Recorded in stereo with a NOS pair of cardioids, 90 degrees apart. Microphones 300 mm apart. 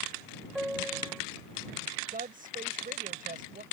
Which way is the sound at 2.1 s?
30° right.